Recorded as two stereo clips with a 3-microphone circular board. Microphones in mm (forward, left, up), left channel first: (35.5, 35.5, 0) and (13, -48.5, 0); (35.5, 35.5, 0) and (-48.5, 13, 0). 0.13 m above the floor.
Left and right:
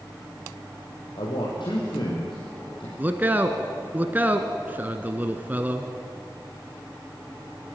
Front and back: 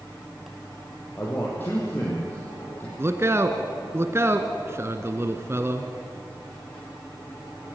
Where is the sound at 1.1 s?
80° left, 4.5 m.